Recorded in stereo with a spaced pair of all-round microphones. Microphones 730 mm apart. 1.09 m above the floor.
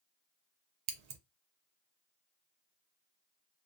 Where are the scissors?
65° right (ahead or behind), 0.6 m.